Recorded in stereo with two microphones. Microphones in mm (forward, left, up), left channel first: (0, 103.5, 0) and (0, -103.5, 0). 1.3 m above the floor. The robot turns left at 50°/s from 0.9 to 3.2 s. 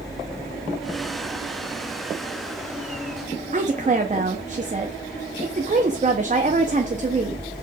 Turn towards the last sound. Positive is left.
turn(degrees=-35)  # may be behind; listen again after turning